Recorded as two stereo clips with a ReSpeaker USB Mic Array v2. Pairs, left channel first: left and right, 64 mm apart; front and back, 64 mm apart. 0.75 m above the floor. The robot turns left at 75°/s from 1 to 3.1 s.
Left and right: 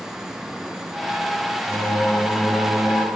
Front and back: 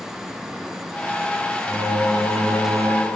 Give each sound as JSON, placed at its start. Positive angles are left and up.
{"t": 1.7, "sound": "singing", "azimuth_deg": 60, "distance_m": 2.5}